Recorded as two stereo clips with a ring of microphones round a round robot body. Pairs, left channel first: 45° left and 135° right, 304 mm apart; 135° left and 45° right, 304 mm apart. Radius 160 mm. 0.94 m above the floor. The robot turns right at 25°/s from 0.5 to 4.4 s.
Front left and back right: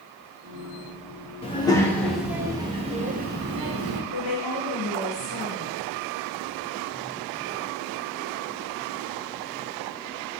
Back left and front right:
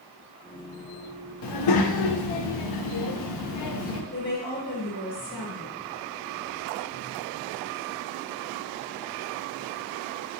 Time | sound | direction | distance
1.4 | a child speaking | 115° left | 0.8 m
4.1 | a woman speaking | 55° left | 1.7 m